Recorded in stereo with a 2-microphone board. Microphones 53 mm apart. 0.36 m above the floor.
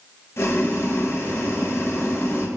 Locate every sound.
0.4 s boiling: 55° left (ahead or behind), 0.7 m